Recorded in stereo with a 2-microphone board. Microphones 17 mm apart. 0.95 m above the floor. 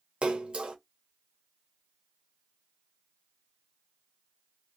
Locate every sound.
0.2 s a splash: 80° right, 0.9 m